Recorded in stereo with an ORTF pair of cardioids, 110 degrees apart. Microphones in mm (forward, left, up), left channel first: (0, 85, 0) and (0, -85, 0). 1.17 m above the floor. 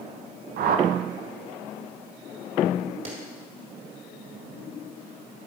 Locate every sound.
0.6 s a whoosh: 55° right, 0.6 m
3.0 s a clap: 40° right, 2 m